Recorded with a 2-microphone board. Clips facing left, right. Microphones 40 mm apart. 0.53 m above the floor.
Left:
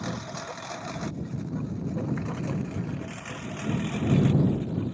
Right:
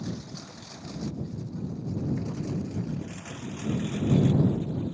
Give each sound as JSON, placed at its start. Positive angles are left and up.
{"t": 0.0, "sound": "a lawn mower", "side_deg": 70}